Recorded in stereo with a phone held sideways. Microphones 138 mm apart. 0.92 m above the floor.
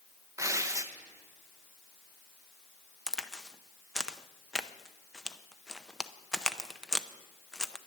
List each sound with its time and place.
0.4 s tearing paper: 20° right (ahead or behind), 0.8 m
3.1 s a crack: 5° left (ahead or behind), 0.6 m